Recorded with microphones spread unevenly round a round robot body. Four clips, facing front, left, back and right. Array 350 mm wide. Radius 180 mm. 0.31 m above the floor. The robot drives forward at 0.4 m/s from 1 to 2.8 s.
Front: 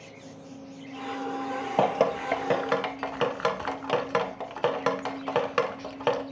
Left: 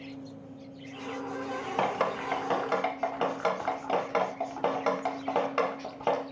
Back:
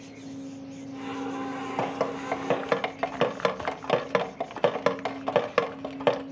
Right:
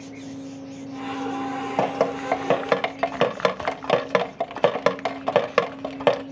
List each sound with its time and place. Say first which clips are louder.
1.8 s dripping: right 6 dB, front 6 dB; 40° right, 0.7 m; by 6.2 s 80° right, 0.5 m